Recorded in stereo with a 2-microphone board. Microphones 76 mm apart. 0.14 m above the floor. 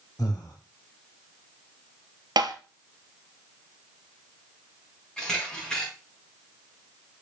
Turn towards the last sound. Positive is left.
turn(degrees=10)  # may be behind; listen again after turning